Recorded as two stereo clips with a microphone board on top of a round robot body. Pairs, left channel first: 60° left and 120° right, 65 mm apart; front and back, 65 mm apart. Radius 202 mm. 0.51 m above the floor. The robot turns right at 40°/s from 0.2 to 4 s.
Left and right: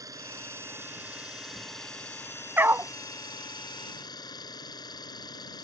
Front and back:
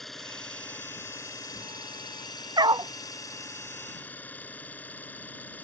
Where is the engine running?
85° right; by 5.6 s 65° left.